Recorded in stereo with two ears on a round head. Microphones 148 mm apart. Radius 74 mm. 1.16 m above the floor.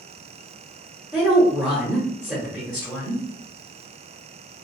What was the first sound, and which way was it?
A woman speaking, centre (ahead or behind).